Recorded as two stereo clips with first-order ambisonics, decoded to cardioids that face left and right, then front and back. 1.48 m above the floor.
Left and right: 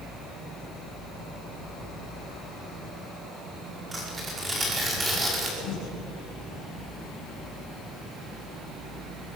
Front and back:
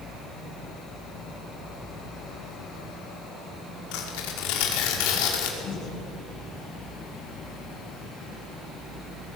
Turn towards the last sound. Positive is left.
turn(degrees=55)